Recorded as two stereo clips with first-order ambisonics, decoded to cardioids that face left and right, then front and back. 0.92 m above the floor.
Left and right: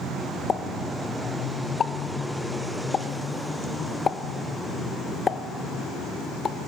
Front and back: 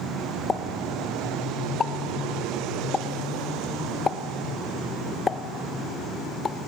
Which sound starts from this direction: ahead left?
A pop, at 0.5 s.